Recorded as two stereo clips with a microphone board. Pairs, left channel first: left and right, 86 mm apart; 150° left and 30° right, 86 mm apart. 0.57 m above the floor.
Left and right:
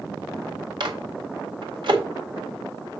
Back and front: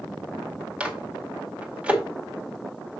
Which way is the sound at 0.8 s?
105° right.